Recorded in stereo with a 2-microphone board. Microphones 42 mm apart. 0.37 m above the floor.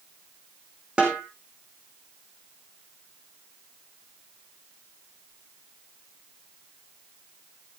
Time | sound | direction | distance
1.0 | a snare drum | 25° right (ahead or behind) | 4.5 m